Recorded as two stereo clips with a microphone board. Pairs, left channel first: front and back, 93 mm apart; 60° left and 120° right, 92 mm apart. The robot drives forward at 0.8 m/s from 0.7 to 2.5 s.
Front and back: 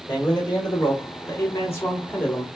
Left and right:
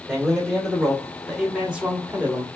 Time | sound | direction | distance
0.1 | a man speaking | 25° right | 2 m